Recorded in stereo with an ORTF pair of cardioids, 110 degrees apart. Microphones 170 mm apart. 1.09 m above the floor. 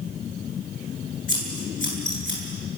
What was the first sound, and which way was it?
Scissors, 50° left.